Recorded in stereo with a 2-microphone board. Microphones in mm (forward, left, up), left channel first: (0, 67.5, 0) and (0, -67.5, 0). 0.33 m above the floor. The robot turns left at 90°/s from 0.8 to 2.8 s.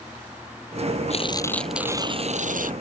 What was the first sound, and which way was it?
Tearing paper, 55° left.